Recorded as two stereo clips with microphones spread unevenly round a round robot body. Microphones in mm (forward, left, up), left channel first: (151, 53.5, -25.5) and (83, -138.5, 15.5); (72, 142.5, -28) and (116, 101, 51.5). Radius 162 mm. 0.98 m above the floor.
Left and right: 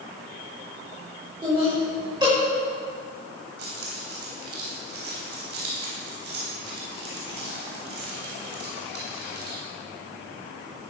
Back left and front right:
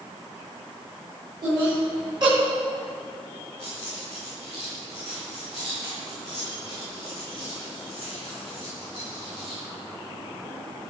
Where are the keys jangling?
135° right, 3.5 m.